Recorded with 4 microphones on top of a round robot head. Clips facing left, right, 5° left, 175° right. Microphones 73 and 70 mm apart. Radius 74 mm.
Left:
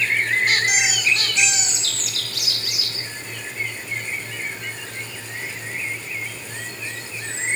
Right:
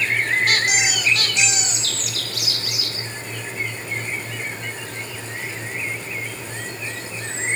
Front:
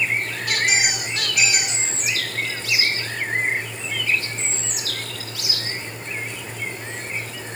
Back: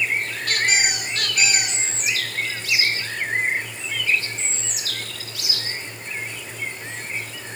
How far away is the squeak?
About 1.8 m.